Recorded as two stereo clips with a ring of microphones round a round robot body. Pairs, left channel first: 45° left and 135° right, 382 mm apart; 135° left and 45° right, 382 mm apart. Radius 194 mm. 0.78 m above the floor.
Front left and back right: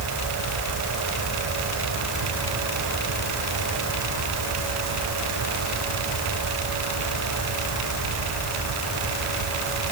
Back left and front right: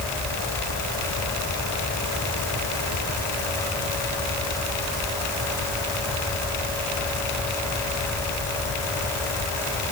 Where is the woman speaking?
I don't hear a woman speaking.